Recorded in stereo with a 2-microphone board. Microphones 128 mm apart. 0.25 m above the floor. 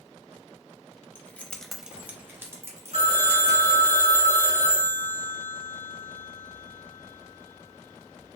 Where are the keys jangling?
15° left (ahead or behind), 0.8 m; by 3.9 s 25° right (ahead or behind), 2 m.